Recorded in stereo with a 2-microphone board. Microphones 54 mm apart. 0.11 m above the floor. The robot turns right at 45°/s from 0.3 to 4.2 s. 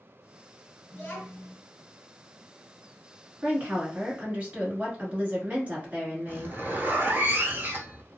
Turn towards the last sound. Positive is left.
turn(degrees=-40)  # may be behind; listen again after turning